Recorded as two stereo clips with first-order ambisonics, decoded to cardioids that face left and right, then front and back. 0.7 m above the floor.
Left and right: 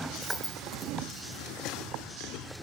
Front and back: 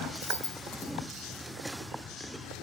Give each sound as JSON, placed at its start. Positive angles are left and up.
{"t": 0.1, "sound": "keys jangling", "azimuth_deg": -5, "distance_m": 5.0}